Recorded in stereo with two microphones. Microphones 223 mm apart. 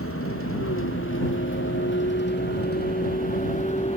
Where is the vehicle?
75° left (ahead or behind); by 4.0 s 25° left (ahead or behind).